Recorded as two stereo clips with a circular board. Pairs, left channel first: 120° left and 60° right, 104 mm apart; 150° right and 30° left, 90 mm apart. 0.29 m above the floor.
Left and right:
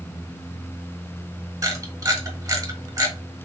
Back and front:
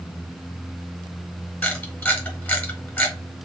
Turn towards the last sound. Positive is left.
turn(degrees=-85)